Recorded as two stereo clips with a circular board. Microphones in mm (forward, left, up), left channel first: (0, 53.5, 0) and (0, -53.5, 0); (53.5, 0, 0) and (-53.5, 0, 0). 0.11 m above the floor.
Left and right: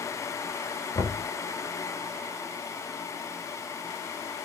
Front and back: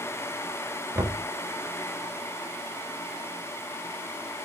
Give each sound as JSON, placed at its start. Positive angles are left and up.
{"t": 0.9, "sound": "knocking", "azimuth_deg": 125, "distance_m": 1.4}